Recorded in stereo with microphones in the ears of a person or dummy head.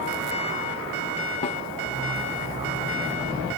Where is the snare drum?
30° left (ahead or behind).